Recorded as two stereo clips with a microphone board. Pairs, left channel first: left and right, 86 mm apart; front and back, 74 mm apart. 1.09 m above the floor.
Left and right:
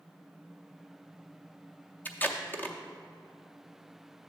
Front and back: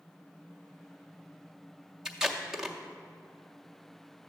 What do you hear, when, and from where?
2.0 s tape being pulled: 105° left, 0.5 m